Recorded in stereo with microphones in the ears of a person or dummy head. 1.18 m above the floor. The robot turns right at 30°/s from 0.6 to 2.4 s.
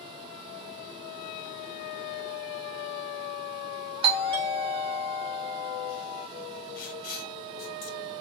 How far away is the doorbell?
About 0.8 m.